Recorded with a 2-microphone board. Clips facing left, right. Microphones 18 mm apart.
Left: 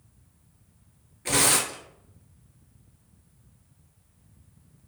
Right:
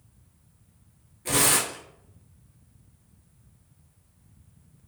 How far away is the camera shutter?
No camera shutter in this recording.